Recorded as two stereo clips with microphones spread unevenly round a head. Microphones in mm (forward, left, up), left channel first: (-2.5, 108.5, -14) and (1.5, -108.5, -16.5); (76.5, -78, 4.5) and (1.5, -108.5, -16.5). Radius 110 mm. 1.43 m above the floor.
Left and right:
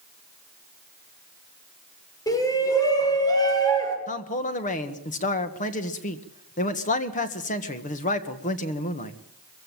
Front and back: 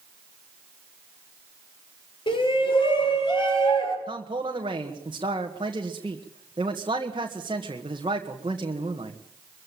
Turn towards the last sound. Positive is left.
turn(degrees=150)